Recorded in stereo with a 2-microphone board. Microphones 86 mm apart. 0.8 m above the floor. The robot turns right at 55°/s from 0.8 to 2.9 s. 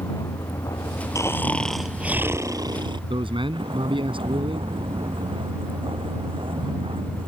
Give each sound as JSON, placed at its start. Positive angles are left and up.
{"t": 0.0, "sound": "a vehicle", "side_deg": 45}
{"t": 1.1, "sound": "snoring", "azimuth_deg": 145}
{"t": 3.1, "sound": "a man speaking", "side_deg": -70}